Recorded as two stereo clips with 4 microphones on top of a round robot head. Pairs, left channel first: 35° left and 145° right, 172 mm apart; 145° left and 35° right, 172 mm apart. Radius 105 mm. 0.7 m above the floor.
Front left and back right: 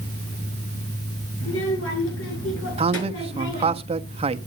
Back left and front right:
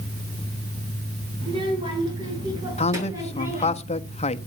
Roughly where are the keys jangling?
I don't hear keys jangling.